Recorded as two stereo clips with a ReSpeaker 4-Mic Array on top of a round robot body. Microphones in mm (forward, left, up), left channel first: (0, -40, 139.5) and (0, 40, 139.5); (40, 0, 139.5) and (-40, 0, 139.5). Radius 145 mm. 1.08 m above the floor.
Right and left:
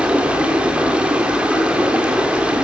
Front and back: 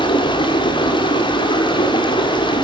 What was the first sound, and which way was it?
Running water, 15° left.